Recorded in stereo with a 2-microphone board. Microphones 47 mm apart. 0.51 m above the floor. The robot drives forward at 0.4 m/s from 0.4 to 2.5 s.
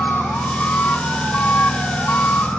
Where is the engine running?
40° left (ahead or behind).